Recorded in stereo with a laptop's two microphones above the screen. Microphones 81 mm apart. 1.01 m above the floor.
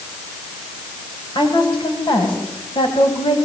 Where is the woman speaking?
80° left, 7.5 m.